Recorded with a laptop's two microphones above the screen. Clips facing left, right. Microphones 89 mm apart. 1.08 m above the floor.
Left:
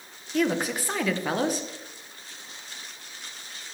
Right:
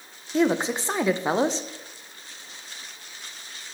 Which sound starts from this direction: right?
A woman speaking, at 0.3 s.